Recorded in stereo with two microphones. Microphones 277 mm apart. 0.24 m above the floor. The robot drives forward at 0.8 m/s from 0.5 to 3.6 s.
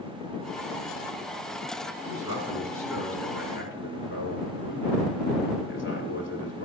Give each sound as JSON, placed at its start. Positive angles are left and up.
{"t": 2.0, "sound": "a man speaking", "side_deg": 60, "distance_m": 2.0}